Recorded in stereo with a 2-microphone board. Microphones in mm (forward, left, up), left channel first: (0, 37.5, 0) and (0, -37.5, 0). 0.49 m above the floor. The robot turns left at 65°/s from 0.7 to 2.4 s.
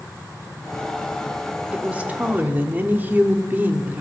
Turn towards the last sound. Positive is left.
turn(degrees=-25)  # may be behind; listen again after turning